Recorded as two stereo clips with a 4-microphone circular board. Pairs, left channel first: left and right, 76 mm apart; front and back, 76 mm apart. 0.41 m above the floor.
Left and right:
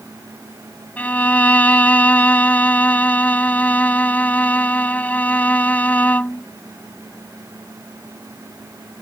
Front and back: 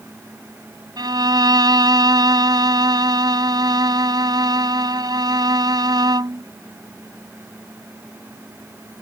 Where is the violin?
160° left.